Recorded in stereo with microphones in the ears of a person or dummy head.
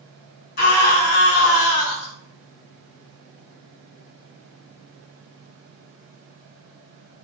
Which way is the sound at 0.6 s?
55° left (ahead or behind).